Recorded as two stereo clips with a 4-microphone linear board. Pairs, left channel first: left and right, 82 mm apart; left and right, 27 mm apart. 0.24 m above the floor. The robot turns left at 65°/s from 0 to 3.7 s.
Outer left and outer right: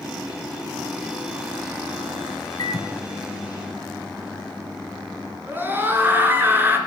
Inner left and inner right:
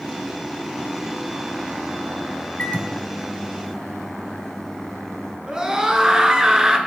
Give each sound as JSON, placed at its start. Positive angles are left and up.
{"t": 2.6, "sound": "a microwave", "azimuth_deg": 85, "distance_m": 1.6}
{"t": 5.5, "sound": "a scream", "side_deg": -25, "distance_m": 2.5}